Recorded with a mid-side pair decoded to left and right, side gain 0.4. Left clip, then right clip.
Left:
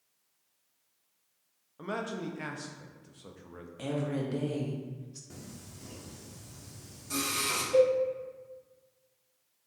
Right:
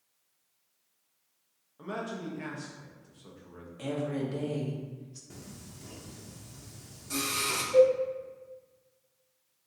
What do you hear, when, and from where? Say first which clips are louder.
1.8 s a man speaking: left 1 dB; 40° left, 0.6 m
3.8 s a woman speaking: right 1 dB; 25° left, 0.9 m
5.3 s singing: even; 5° left, 0.9 m
7.7 s a cowbell: right 3 dB; 40° left, 1.9 m